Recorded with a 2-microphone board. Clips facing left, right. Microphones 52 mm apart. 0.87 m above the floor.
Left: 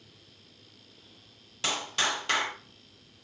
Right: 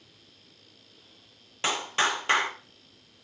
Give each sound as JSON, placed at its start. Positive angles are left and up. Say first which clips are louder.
{"t": 1.6, "sound": "a clap", "louder": "right 4 dB", "side_deg": -25, "distance_m": 2.5}